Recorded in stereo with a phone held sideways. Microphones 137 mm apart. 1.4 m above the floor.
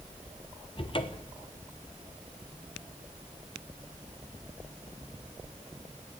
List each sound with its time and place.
0.8 s a cupboard door: 40° left (ahead or behind), 1.0 m